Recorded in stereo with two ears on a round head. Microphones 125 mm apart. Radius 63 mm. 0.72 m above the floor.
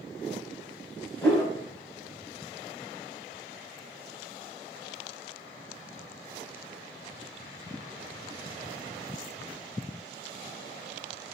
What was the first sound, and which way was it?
A whoosh, 15° left (ahead or behind).